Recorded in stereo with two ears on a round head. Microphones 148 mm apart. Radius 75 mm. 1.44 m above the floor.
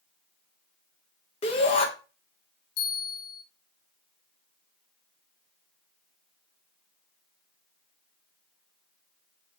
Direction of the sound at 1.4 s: 35° left (ahead or behind).